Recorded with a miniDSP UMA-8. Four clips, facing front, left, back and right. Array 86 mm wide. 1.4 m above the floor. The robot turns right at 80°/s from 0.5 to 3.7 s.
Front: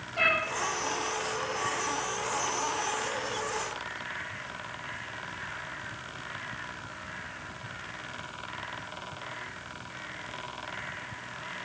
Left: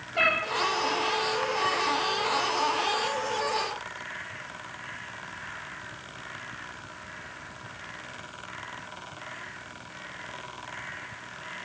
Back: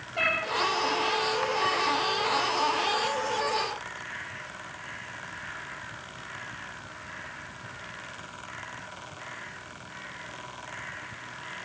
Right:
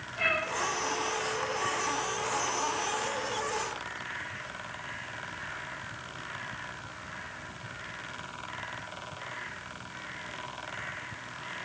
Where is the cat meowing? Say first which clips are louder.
Left 5 dB, front 1 dB; 100° left, 8.5 m.